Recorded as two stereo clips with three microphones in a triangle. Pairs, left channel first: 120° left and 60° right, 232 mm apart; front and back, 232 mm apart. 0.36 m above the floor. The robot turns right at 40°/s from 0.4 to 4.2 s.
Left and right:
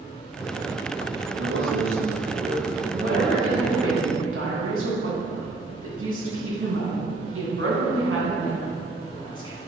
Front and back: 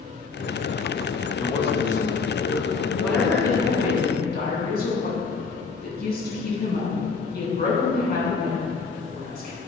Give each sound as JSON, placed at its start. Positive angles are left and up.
{"t": 1.4, "sound": "a man speaking", "azimuth_deg": -70, "distance_m": 1.7}
{"t": 3.0, "sound": "a woman speaking", "azimuth_deg": -90, "distance_m": 3.0}